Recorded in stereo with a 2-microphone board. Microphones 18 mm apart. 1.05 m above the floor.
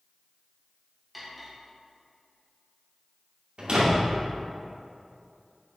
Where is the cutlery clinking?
5° right (ahead or behind), 1.3 m.